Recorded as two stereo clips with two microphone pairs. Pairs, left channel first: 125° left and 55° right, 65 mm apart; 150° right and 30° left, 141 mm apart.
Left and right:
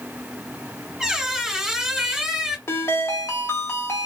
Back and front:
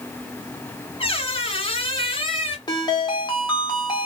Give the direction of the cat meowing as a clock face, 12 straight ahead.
I don't hear a cat meowing.